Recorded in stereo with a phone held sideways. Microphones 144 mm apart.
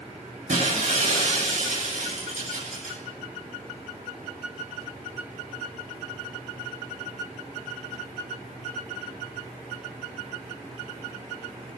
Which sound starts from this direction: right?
Breaking glass, at 0.5 s.